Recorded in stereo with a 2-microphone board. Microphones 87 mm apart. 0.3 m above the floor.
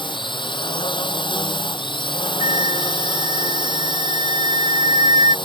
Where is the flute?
60° right (ahead or behind).